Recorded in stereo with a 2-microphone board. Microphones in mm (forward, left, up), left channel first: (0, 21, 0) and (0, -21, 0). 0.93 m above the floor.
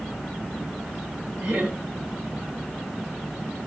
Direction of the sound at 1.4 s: 45° right (ahead or behind).